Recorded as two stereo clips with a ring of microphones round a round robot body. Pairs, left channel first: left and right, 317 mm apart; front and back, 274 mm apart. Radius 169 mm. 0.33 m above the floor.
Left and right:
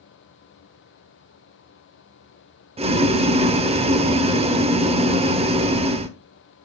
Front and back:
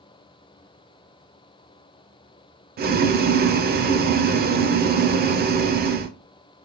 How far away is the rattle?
I don't hear a rattle.